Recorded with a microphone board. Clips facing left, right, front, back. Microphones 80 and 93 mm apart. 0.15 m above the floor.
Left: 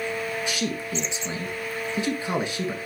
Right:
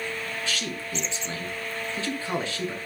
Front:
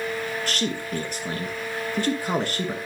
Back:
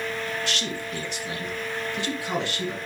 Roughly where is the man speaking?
Ahead left.